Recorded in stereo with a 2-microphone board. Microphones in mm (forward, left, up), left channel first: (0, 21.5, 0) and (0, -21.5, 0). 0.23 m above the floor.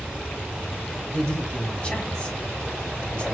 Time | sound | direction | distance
1.1 | a man speaking | 20° left (ahead or behind) | 1.9 m